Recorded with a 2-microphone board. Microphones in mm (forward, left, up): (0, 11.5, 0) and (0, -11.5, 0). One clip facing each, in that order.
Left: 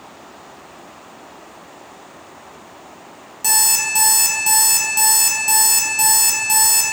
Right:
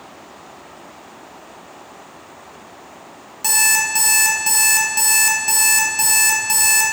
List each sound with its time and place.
3.4 s an alarm clock: 15° right (ahead or behind), 0.7 m